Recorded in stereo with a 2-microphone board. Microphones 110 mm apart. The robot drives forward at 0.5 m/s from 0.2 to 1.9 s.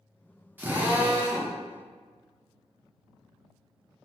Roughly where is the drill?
Centre.